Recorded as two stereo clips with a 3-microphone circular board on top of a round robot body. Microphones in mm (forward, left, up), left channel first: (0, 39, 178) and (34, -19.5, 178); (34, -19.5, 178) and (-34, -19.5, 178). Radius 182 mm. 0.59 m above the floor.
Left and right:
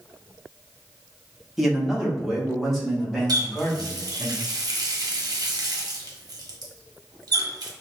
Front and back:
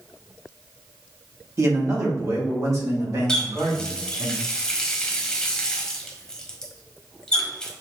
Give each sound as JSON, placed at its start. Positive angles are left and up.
{"t": 1.6, "sound": "a man speaking", "azimuth_deg": -150, "distance_m": 1.6}
{"t": 3.3, "sound": "a running tap", "azimuth_deg": -80, "distance_m": 1.1}